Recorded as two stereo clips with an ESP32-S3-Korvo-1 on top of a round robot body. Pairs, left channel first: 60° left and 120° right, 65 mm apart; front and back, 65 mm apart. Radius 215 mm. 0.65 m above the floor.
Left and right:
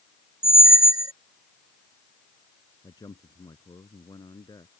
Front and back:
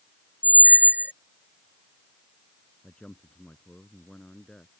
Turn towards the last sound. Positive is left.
turn(degrees=80)